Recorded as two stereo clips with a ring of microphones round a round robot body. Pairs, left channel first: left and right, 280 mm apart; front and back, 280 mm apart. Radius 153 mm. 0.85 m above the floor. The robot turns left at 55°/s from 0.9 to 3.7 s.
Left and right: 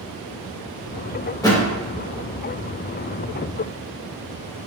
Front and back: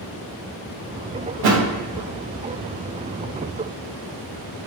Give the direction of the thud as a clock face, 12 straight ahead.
6 o'clock.